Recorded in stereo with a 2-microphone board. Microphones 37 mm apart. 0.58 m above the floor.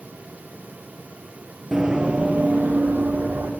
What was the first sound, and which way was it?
Running footsteps, 10° right (ahead or behind).